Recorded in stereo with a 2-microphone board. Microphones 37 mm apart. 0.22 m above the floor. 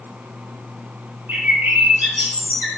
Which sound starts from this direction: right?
A bird, at 1.3 s.